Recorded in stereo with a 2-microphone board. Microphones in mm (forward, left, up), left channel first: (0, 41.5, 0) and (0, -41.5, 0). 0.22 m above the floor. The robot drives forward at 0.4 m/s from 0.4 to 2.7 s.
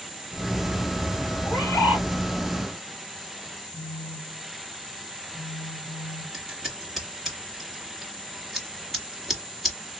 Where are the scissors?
Centre (ahead or behind), 1.4 m.